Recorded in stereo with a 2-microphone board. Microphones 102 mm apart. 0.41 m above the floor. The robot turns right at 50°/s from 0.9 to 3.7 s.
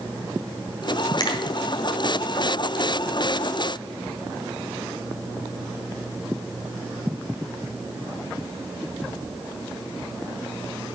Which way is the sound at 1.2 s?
45° left (ahead or behind).